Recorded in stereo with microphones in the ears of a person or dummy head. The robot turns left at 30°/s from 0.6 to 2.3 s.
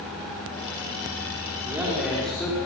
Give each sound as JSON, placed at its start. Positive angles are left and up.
{"t": 1.7, "sound": "a man speaking", "side_deg": -5, "distance_m": 5.5}